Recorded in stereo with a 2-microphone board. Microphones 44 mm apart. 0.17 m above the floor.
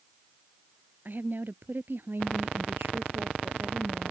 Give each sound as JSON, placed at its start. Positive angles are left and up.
{"t": 1.1, "sound": "a woman speaking", "side_deg": -50}